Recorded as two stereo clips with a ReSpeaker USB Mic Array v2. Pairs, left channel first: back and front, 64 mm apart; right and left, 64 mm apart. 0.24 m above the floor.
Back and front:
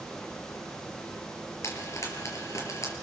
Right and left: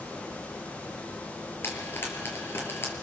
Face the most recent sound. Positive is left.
turn(degrees=-145)